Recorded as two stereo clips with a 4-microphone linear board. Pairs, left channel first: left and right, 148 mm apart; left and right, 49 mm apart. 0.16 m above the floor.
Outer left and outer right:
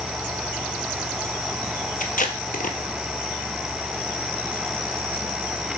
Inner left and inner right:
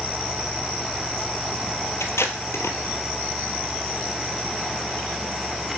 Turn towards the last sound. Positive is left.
turn(degrees=70)  # may be behind; listen again after turning